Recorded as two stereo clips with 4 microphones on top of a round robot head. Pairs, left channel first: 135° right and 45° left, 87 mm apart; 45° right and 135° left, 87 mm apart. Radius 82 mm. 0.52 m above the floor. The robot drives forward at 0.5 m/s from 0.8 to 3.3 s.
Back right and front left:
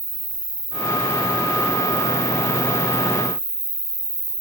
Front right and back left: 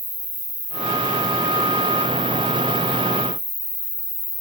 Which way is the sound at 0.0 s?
15° right.